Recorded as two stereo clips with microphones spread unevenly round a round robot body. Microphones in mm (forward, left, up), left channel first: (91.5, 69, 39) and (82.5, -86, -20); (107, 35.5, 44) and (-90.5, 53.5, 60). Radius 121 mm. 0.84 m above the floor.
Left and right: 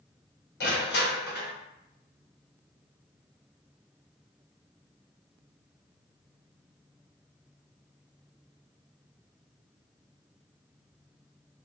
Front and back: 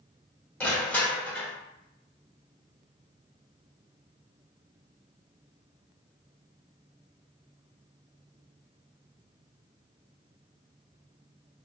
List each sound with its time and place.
0.6 s crushing: 80° left, 1.4 m